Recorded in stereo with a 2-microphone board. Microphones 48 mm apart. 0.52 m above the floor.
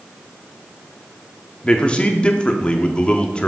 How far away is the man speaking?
About 0.7 m.